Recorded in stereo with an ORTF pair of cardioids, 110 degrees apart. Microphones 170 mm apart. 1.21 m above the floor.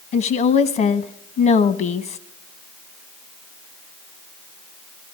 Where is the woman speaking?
60° left, 1.0 m.